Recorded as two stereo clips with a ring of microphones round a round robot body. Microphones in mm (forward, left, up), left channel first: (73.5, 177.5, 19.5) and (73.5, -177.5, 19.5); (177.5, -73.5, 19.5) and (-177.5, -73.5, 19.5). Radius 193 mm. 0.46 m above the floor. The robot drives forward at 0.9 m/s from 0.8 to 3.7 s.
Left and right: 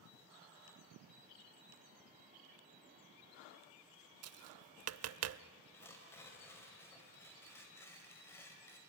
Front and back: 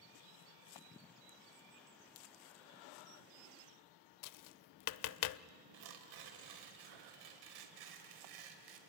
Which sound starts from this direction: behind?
Tearing paper, at 5.7 s.